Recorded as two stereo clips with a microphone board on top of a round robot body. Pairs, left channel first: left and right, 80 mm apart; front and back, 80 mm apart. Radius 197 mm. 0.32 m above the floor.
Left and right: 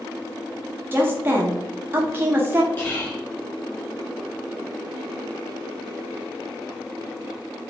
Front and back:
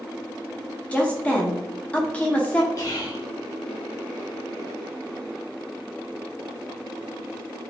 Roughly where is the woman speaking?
Ahead right.